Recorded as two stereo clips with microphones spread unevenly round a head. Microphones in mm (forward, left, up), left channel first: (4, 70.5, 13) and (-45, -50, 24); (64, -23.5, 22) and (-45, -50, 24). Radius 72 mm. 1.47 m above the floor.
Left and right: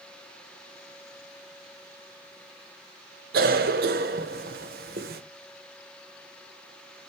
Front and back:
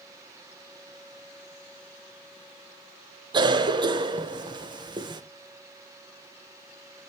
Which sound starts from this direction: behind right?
A cough, at 3.3 s.